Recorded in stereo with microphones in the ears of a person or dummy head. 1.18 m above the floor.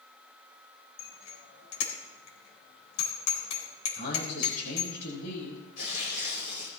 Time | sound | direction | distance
1.0 | a bicycle bell | 75° left (ahead or behind) | 4 m
4.0 | a man speaking | 50° left (ahead or behind) | 6.5 m
5.8 | tearing paper | 85° left | 4.5 m